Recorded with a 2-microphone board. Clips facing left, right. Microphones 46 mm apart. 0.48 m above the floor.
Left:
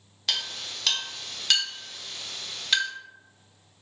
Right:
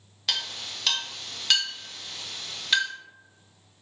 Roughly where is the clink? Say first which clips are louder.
Even; centre.